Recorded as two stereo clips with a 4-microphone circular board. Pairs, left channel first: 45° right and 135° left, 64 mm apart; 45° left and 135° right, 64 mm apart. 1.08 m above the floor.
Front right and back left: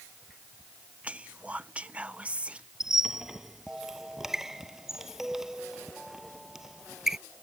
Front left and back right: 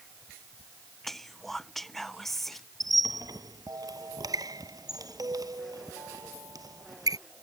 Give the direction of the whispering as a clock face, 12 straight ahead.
8 o'clock.